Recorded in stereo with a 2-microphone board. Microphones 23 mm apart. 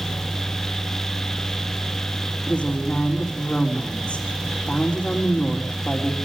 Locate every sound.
2.5 s a woman speaking: 55° left (ahead or behind), 5 m